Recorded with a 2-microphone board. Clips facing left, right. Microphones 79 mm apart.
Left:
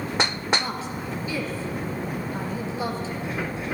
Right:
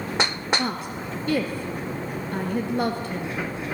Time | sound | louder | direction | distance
0.6 | a woman speaking | right 2 dB | 60° right (ahead or behind) | 3 m